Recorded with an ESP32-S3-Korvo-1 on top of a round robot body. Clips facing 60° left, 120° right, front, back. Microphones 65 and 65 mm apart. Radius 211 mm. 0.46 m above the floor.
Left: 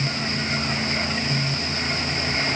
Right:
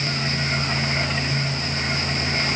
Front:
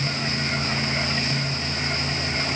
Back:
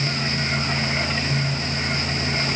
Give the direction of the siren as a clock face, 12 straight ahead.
No siren in this recording.